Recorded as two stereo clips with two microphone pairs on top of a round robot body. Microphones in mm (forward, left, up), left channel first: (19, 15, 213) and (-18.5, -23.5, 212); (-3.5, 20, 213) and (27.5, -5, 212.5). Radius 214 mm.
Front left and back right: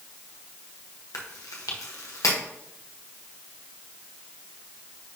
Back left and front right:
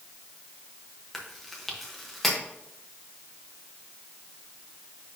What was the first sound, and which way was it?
Chewing, 55° left.